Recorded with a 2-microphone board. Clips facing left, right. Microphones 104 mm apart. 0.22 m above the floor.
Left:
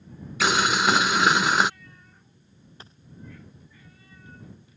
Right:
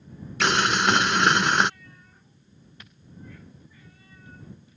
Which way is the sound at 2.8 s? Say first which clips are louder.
Left 4 dB; 30° left (ahead or behind).